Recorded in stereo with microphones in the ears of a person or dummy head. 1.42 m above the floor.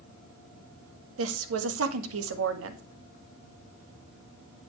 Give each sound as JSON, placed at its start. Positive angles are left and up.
{"t": 1.2, "sound": "a woman speaking", "side_deg": -75, "distance_m": 1.7}